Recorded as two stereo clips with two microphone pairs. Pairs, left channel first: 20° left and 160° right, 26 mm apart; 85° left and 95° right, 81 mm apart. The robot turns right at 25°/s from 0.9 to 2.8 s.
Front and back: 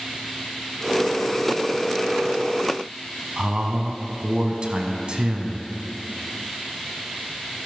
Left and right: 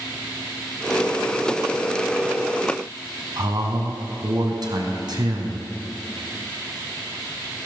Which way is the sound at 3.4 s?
120° right.